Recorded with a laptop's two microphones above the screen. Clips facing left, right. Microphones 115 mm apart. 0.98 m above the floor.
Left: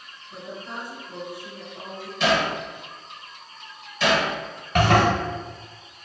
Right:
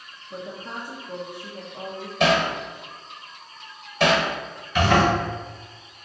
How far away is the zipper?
About 1.5 m.